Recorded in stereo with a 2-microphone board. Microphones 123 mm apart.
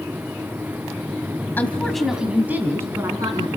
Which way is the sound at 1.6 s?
15° left (ahead or behind).